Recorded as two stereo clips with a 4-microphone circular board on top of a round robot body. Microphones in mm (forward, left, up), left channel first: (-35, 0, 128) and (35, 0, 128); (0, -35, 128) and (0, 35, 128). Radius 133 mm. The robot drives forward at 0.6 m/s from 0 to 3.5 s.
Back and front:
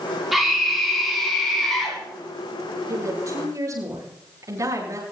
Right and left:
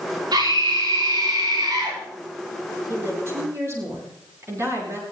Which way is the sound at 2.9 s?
40° left.